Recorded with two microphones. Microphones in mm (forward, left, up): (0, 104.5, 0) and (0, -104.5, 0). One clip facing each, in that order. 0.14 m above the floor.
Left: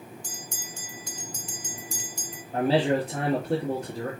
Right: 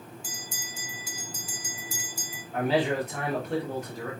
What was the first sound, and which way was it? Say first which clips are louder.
A bell: left 1 dB; 5° right (ahead or behind).